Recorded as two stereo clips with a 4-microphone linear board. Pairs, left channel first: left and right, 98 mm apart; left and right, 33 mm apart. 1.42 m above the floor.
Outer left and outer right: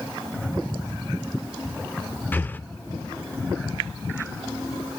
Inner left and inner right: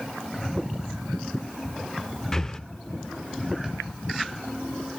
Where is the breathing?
20° left (ahead or behind), 0.6 m.